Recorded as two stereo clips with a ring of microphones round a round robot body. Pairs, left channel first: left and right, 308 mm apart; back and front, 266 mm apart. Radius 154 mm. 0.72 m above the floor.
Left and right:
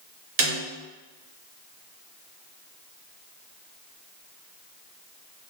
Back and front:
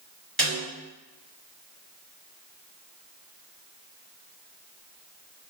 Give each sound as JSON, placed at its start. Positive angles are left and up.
{"t": 0.4, "sound": "a snare drum", "azimuth_deg": -95, "distance_m": 1.2}